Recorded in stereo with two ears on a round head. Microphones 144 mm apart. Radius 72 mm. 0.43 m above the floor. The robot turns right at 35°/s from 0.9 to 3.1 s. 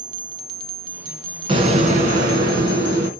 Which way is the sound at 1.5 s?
140° right.